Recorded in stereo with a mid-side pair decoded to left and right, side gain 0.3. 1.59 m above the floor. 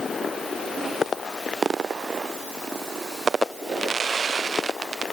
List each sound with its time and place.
Only background noise.